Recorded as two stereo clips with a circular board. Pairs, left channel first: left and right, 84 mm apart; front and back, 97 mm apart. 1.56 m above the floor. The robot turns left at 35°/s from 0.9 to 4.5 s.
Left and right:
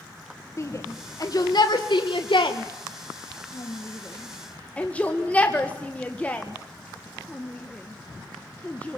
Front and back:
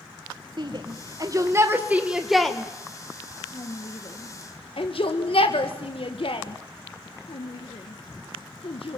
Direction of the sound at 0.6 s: 140° left.